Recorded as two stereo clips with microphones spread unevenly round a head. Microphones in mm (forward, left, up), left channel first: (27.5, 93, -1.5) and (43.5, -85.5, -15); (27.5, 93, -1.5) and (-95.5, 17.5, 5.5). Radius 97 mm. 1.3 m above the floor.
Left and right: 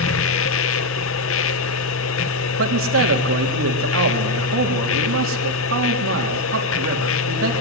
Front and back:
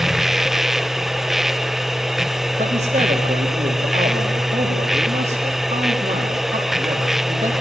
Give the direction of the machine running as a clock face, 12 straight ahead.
8 o'clock.